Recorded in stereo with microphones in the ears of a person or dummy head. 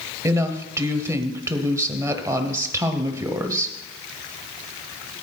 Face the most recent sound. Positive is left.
turn(degrees=-15)  # may be behind; listen again after turning